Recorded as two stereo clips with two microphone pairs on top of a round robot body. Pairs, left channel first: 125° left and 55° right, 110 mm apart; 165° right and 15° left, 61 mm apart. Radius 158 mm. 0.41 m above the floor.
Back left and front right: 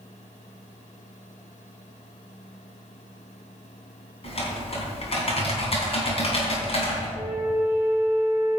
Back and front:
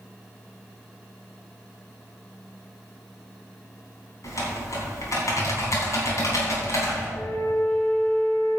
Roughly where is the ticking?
No ticking in this recording.